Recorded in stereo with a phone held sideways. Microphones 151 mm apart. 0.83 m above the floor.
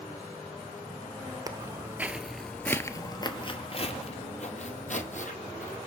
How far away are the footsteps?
About 0.9 m.